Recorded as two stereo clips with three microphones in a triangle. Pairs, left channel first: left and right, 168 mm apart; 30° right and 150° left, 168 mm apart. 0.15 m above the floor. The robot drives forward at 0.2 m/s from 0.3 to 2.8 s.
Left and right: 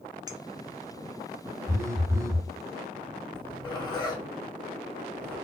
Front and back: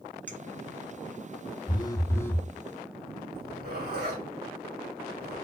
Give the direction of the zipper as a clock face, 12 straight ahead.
7 o'clock.